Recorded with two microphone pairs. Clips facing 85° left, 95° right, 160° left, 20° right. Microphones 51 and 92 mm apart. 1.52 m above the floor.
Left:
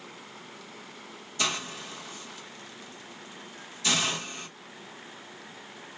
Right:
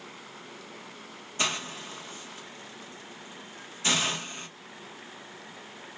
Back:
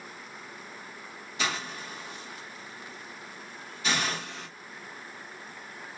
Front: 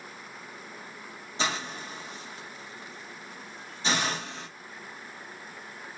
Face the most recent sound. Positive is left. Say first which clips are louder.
# even, front 1 dB
turn(degrees=-60)